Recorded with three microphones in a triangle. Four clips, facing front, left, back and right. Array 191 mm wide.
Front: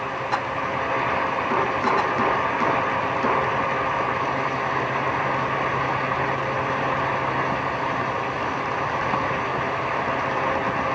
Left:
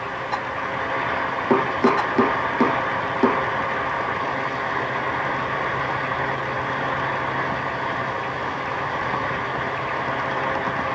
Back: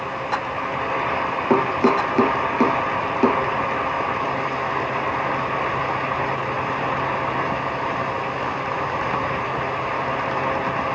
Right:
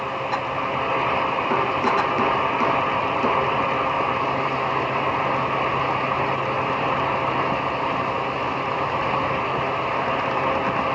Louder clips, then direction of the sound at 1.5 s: Left 5 dB, back 5 dB; 145° left.